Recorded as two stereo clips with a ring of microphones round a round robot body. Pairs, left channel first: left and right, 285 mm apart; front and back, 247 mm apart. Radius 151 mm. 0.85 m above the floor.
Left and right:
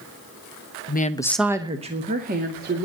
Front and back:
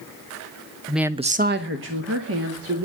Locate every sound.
0.9 s a woman speaking: 85° left, 1.0 m; by 2.9 s 145° right, 3 m